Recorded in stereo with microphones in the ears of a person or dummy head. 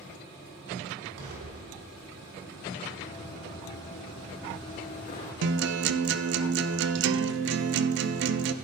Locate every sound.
1.2 s an explosion: 80° right, 3.5 m
3.0 s running footsteps: 45° left (ahead or behind), 2.5 m; by 5.3 s 50° left (ahead or behind), 4 m
5.4 s a guitar: 60° right (ahead or behind), 0.6 m